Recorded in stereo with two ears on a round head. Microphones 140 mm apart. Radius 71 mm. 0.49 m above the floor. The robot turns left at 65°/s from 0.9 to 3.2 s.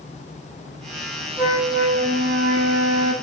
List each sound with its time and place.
1.4 s a flute: 10° right, 2.5 m; by 3.1 s 125° right, 2.5 m